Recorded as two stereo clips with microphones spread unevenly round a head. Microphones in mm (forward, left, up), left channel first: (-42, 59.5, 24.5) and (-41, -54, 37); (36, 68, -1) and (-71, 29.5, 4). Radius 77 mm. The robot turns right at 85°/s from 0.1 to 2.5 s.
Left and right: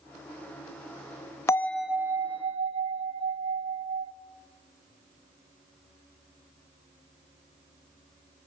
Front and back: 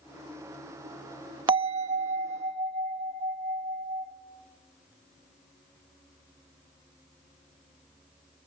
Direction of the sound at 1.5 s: 155° left.